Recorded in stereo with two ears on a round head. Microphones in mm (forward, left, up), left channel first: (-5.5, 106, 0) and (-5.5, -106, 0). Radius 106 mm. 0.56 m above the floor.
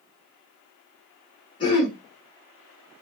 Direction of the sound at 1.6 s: 20° left (ahead or behind).